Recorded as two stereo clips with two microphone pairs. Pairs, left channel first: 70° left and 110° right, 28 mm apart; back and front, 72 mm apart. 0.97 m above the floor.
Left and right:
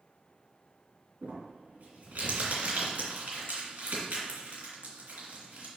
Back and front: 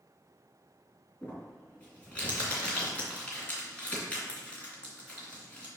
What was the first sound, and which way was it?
Crumpling, 110° right.